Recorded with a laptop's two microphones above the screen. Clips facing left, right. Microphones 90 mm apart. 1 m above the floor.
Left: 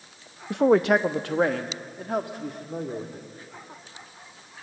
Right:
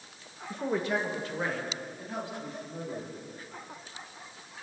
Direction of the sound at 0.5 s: 75° left (ahead or behind).